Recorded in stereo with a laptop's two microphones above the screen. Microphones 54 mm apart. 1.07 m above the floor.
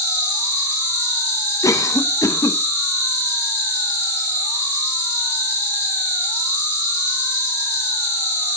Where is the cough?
80° left, 0.8 m.